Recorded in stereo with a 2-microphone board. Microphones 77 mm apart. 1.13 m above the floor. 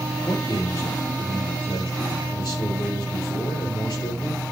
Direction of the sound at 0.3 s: 70° left (ahead or behind).